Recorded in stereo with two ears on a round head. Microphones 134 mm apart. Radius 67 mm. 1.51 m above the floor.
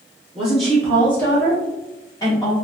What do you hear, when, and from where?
0.3 s a woman speaking: 5° right (ahead or behind), 1.0 m; by 2.5 s 30° left (ahead or behind), 2 m